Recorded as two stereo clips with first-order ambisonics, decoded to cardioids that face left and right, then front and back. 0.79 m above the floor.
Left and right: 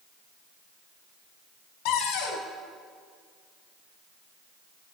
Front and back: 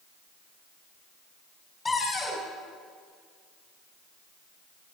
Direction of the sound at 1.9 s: 80° left.